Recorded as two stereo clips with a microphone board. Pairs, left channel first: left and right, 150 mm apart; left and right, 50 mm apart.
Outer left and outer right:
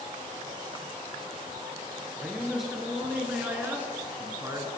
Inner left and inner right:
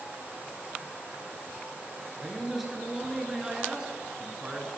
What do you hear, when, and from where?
2.2 s a man speaking: centre (ahead or behind), 2.5 m; by 4.7 s 25° right (ahead or behind), 1.9 m